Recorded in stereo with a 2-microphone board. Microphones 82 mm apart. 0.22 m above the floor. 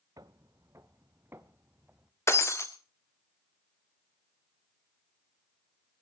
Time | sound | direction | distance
0.2 | footsteps | 50° right (ahead or behind) | 1.0 m
2.3 | breaking glass | 35° left (ahead or behind) | 1.8 m